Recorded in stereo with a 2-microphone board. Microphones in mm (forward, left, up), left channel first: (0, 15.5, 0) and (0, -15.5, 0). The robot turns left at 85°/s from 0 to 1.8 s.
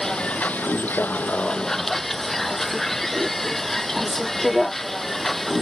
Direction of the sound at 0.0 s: 160° left.